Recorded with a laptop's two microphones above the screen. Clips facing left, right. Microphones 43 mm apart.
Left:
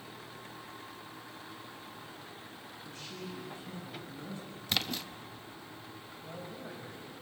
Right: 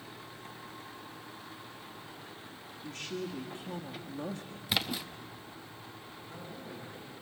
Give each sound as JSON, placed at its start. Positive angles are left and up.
{"t": 2.8, "sound": "a woman speaking", "side_deg": -60, "distance_m": 1.6}
{"t": 4.7, "sound": "a splash", "side_deg": -10, "distance_m": 0.5}
{"t": 6.2, "sound": "a man speaking", "side_deg": 80, "distance_m": 6.5}